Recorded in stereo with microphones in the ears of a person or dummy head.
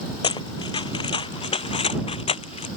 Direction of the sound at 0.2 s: 30° left (ahead or behind).